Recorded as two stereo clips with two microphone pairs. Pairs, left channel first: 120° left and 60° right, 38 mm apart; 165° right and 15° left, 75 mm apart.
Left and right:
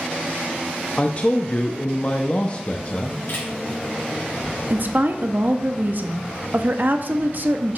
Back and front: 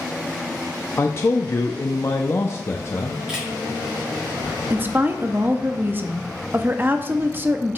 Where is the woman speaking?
40° right, 0.6 m.